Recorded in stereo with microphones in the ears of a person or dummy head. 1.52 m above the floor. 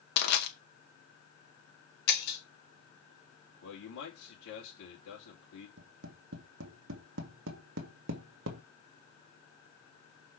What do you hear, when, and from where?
0.2 s crushing: 60° left (ahead or behind), 2 m
2.1 s breaking glass: 50° left (ahead or behind), 1.2 m
3.6 s a man speaking: 75° left (ahead or behind), 3 m
5.8 s tapping: 70° right (ahead or behind), 1.7 m